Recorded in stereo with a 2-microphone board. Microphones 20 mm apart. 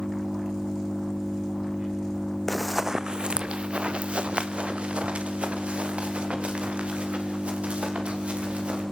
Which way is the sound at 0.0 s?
65° right (ahead or behind).